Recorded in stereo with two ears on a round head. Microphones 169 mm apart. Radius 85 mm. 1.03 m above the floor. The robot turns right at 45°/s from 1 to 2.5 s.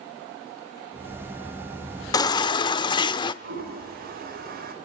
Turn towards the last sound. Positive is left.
turn(degrees=-50)  # may be behind; listen again after turning